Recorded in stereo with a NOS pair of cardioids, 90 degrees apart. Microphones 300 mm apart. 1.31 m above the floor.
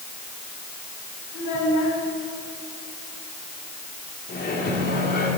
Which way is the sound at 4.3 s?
35° left.